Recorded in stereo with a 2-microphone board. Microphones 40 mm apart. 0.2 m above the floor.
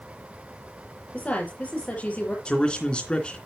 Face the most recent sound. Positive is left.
turn(degrees=25)  # may be behind; listen again after turning